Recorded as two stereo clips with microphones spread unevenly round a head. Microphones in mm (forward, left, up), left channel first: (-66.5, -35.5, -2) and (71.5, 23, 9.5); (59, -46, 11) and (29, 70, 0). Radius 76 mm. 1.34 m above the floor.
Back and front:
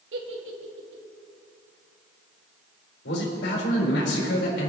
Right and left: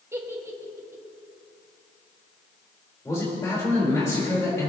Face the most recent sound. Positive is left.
turn(degrees=-150)